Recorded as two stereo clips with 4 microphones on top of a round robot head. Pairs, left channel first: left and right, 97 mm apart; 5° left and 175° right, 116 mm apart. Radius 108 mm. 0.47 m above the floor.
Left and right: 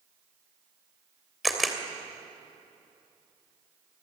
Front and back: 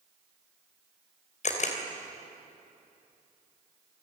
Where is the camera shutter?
Straight ahead, 3 m.